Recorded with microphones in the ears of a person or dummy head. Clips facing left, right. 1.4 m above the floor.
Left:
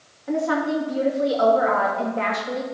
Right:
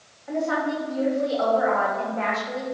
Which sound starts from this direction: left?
A woman speaking, at 0.3 s.